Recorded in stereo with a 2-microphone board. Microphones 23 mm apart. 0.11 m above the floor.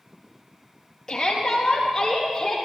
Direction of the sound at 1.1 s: 20° left (ahead or behind).